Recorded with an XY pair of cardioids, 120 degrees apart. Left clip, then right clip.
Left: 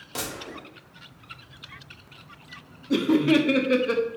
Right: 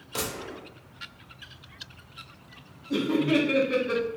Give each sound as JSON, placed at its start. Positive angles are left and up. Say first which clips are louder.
{"t": 0.1, "sound": "a gunshot", "louder": "right 1 dB", "azimuth_deg": 5, "distance_m": 1.4}
{"t": 2.9, "sound": "laughter", "louder": "left 4 dB", "azimuth_deg": 40, "distance_m": 0.8}